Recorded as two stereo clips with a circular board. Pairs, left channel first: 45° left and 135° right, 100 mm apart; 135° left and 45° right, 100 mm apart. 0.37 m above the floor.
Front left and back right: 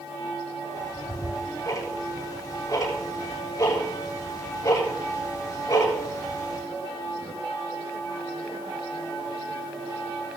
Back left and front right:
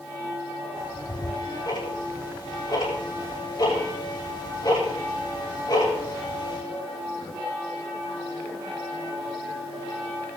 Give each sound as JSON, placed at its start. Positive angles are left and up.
{"t": 0.8, "sound": "ticking", "azimuth_deg": 95, "distance_m": 6.5}